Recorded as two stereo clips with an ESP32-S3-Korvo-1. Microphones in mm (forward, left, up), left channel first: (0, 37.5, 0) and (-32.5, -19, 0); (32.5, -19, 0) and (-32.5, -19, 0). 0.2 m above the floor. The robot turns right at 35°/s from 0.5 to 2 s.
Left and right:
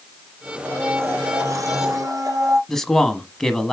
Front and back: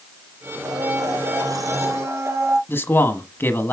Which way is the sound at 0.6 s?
175° left.